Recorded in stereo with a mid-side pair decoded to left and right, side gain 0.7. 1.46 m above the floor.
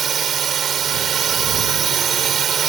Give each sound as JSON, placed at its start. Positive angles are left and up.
{"t": 0.0, "sound": "a drone", "azimuth_deg": -35}